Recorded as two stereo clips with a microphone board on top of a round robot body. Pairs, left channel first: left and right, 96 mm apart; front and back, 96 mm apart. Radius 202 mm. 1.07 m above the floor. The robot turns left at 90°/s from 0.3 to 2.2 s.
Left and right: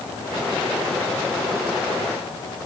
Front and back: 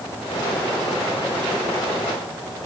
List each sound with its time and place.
Only background noise.